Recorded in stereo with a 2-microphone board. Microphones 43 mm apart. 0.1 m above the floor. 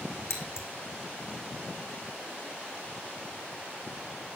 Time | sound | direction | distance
0.3 | scissors | 70° left (ahead or behind) | 4.5 m